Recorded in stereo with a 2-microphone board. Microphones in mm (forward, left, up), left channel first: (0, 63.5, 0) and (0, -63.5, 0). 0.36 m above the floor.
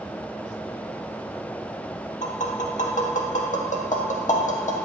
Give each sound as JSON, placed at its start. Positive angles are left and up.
{"t": 2.2, "sound": "tapping", "side_deg": 70, "distance_m": 0.5}